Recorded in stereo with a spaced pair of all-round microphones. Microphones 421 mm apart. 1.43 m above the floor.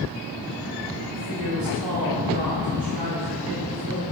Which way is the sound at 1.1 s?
55° right (ahead or behind).